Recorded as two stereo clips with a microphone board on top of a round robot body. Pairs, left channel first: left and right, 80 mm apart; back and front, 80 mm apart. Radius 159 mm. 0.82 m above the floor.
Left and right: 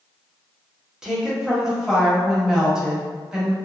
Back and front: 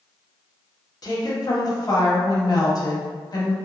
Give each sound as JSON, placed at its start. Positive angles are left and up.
{"t": 1.0, "sound": "a woman speaking", "azimuth_deg": -170, "distance_m": 1.0}